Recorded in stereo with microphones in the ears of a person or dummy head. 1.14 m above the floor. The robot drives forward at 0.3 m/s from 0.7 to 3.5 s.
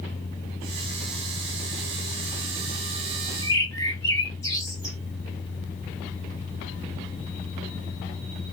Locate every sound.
3.4 s a bird: 15° left (ahead or behind), 0.8 m